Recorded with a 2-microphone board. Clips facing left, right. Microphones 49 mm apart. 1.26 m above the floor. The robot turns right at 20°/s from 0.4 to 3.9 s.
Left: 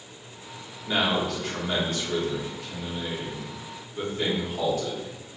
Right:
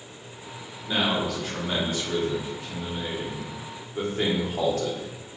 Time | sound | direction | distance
0.9 | a man speaking | 175° left | 1.3 m